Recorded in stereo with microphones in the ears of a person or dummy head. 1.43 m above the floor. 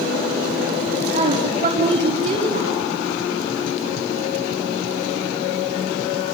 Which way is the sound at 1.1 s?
30° right (ahead or behind).